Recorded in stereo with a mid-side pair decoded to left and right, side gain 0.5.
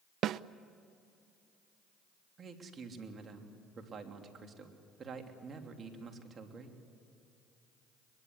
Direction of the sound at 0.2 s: 60° right.